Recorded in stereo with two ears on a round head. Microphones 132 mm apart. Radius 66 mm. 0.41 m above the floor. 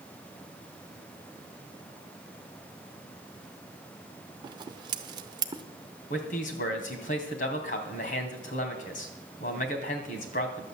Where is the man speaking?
55° left (ahead or behind), 2.5 m.